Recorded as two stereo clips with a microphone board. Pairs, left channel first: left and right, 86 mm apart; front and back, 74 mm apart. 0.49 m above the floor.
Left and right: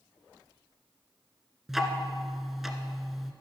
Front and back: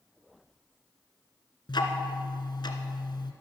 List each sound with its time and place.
1.7 s ticking: 5° right, 1.2 m